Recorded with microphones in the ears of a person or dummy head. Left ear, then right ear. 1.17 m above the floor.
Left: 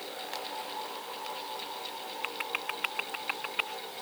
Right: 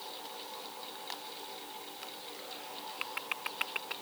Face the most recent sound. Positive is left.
No sound to turn to.